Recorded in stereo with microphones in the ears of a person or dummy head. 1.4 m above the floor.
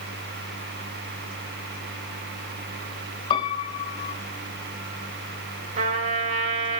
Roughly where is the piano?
Left.